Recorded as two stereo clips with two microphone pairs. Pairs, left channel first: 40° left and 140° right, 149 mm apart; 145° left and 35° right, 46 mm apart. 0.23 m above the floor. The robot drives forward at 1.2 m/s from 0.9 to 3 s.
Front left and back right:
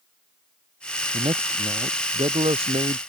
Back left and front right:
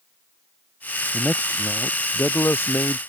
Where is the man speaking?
170° left.